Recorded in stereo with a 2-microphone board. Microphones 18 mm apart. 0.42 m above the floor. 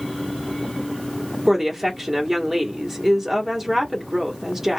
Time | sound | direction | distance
1.5 | a woman speaking | 20° right (ahead or behind) | 1.3 m